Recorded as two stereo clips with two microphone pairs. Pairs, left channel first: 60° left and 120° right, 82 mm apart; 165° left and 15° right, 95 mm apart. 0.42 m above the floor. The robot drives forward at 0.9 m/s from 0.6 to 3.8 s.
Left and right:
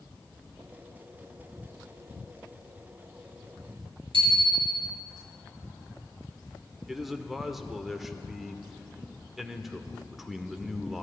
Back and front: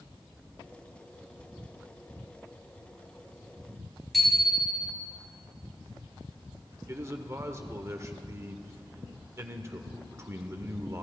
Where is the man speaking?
30° right, 0.8 m.